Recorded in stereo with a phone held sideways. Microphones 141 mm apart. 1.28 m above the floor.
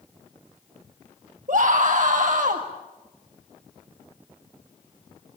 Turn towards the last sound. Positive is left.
turn(degrees=-65)  # may be behind; listen again after turning